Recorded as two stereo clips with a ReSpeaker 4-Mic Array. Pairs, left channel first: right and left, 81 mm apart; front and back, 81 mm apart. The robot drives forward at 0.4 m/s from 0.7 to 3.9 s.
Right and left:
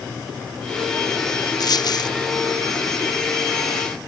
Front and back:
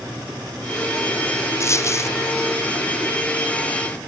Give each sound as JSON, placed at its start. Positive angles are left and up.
{"t": 1.6, "sound": "a dropped coin", "azimuth_deg": -55}